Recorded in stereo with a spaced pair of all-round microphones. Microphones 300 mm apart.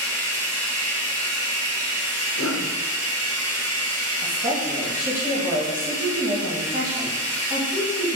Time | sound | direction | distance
0.0 | running water | 55° right (ahead or behind) | 0.7 m
2.4 | a cough | 60° left (ahead or behind) | 0.7 m
4.2 | a woman speaking | 30° right (ahead or behind) | 1.6 m